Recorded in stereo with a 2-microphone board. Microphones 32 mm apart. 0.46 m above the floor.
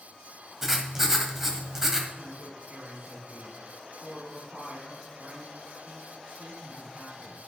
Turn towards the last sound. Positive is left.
turn(degrees=-60)  # may be behind; listen again after turning